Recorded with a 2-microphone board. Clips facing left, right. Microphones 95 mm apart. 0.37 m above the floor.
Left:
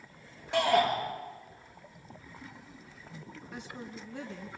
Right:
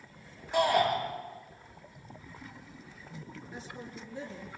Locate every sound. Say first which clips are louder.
0.5 s a shout: even; 80° left, 7 m
3.5 s a woman speaking: left 2 dB; 70° left (ahead or behind), 3 m